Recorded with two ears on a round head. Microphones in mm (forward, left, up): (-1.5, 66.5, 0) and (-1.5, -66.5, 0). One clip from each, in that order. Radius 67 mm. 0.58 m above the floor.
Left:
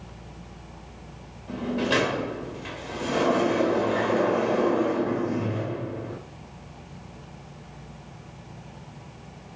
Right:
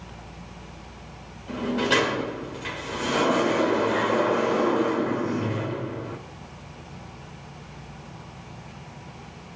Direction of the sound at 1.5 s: 40° right (ahead or behind).